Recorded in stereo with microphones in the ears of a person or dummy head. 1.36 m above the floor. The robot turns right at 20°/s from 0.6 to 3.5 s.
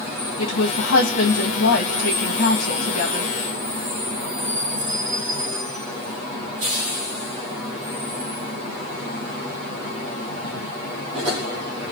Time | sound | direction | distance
0.4 | a woman speaking | 80° left | 1.3 m